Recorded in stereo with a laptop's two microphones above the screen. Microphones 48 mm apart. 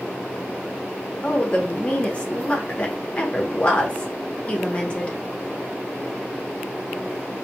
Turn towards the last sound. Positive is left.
turn(degrees=25)  # may be behind; listen again after turning